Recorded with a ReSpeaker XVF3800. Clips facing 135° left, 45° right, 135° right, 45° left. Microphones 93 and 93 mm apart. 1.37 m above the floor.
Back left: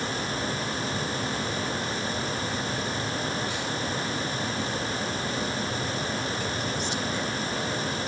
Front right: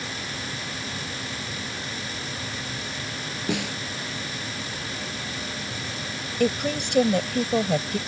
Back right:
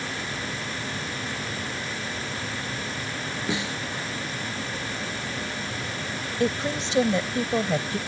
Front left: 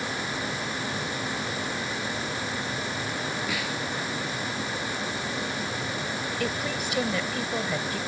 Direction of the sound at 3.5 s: 70° right.